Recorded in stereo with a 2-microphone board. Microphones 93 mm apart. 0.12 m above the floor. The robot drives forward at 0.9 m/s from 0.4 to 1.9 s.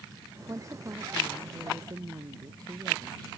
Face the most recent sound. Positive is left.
turn(degrees=-45)  # may be behind; listen again after turning